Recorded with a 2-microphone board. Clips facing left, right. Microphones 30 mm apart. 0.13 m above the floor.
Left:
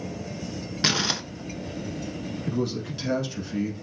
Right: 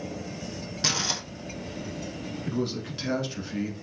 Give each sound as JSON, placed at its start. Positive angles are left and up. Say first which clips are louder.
{"t": 0.8, "sound": "crumpling", "louder": "left 4 dB", "side_deg": 30, "distance_m": 0.5}
{"t": 2.5, "sound": "a man speaking", "louder": "left 2 dB", "side_deg": -10, "distance_m": 1.1}